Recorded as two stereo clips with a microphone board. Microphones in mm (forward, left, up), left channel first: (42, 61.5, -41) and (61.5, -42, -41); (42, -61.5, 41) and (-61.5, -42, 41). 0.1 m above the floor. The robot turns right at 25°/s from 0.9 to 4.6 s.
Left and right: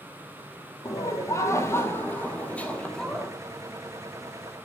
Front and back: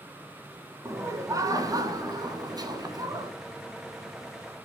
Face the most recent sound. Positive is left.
turn(degrees=-140)